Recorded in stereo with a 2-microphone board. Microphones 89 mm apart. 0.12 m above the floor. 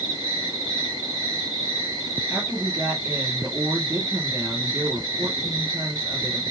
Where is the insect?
45° right (ahead or behind), 2 m.